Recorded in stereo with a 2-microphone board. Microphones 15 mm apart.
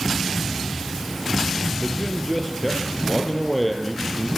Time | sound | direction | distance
1.8 | a man speaking | 5° left (ahead or behind) | 4 m